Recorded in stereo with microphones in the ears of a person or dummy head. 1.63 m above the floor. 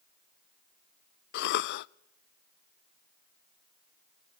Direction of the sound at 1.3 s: 55° left (ahead or behind).